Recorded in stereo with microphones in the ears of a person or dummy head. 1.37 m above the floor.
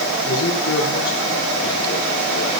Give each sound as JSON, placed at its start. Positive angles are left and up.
{"t": 0.2, "sound": "a man speaking", "side_deg": 75, "distance_m": 4.0}